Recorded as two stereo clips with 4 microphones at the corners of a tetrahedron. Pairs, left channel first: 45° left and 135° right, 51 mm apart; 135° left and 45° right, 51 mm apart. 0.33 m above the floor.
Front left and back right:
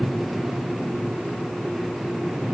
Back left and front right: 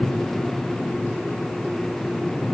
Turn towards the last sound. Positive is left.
No sound to turn to.